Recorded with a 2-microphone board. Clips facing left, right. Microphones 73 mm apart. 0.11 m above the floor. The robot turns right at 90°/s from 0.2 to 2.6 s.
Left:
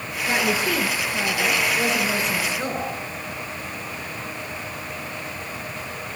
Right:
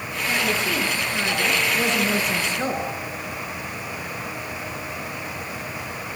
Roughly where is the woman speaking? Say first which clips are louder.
Left 2 dB; behind left.